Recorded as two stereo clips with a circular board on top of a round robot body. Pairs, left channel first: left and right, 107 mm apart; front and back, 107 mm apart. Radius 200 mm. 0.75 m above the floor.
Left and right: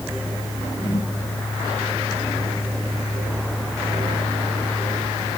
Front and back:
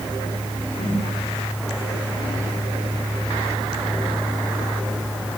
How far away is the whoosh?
About 2.5 m.